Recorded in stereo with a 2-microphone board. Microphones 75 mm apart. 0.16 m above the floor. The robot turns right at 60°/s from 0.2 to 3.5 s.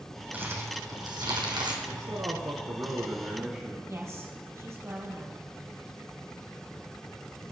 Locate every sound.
0.3 s crumpling: 25° right (ahead or behind), 2.5 m; by 1.8 s 70° right (ahead or behind), 2.5 m
1.9 s a man speaking: 110° right, 2 m; by 3.8 s 15° right, 2 m
3.9 s a woman speaking: 40° right (ahead or behind), 3.5 m